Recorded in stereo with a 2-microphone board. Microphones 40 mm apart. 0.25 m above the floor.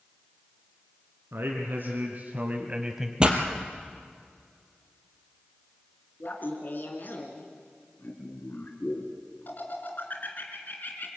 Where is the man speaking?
70° right (ahead or behind), 2.5 m; by 3.1 s 5° right (ahead or behind), 1.2 m.